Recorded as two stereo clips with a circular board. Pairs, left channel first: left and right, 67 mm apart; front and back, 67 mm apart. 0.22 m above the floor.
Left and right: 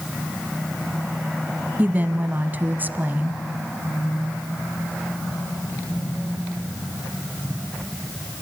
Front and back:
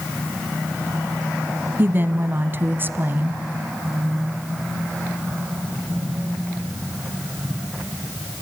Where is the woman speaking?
140° right, 1.4 m.